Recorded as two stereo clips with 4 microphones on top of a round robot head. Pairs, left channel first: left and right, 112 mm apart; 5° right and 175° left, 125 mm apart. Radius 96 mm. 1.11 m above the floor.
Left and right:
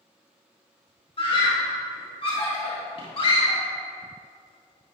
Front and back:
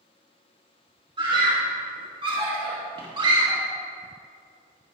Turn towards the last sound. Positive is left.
turn(degrees=125)